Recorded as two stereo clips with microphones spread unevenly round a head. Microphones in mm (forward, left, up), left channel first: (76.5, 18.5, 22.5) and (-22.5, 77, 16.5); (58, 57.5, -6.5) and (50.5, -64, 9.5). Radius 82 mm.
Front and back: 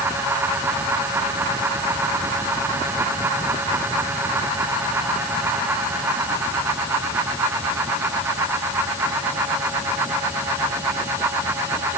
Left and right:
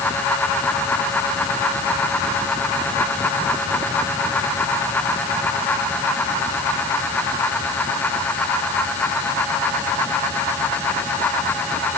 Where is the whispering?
I don't hear whispering.